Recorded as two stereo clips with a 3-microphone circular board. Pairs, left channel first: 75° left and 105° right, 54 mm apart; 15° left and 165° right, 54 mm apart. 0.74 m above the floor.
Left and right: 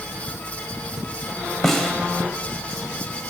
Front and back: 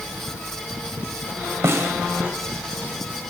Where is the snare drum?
160° left, 2.5 m.